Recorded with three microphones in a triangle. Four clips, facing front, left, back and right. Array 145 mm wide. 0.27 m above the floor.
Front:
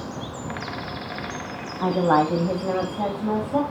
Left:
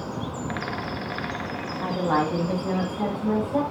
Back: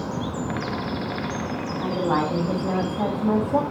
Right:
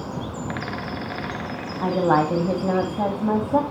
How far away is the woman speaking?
About 2.0 m.